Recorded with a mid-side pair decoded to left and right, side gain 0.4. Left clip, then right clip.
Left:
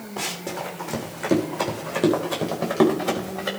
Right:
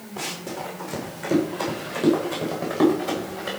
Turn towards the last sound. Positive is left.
turn(degrees=45)